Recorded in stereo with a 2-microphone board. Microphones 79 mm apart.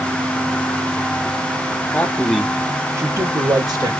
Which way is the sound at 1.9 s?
25° left (ahead or behind).